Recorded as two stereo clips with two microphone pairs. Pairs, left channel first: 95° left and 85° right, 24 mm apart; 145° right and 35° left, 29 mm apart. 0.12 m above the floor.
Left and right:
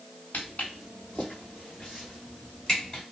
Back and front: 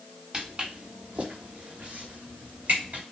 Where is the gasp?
No gasp in this recording.